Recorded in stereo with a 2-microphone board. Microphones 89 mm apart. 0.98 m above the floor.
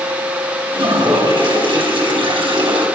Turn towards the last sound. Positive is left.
turn(degrees=-80)